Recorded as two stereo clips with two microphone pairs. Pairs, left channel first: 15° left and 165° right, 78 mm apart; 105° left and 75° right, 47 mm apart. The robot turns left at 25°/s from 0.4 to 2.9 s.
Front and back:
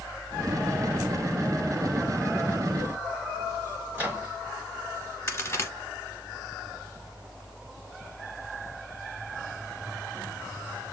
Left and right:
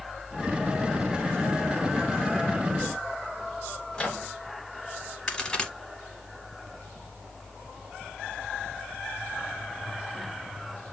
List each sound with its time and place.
3.9 s a microwave: 160° left, 1.3 m
5.3 s a crack: 45° left, 0.7 m